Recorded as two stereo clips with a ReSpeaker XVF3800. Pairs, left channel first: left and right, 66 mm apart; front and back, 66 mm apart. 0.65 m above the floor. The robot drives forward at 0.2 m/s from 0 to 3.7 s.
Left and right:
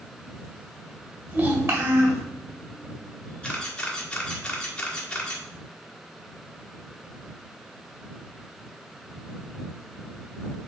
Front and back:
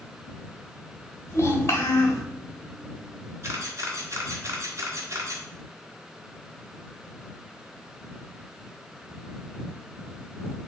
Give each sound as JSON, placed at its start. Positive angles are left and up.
{"t": 1.3, "sound": "a child speaking", "azimuth_deg": -45, "distance_m": 2.0}
{"t": 3.4, "sound": "a camera shutter", "azimuth_deg": 160, "distance_m": 1.5}